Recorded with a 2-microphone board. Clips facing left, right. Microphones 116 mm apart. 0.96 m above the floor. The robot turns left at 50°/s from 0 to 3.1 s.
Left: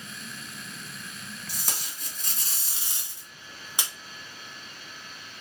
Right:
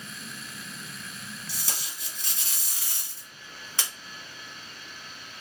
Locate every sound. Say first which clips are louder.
1.5 s tape being pulled: left 1 dB; 100° left, 1.2 m; by 3.9 s 20° left, 1.2 m